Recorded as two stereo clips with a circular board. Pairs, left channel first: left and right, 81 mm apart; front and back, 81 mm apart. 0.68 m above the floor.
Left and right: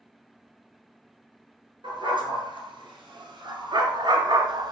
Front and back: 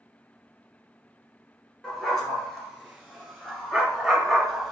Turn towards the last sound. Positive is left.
turn(degrees=-90)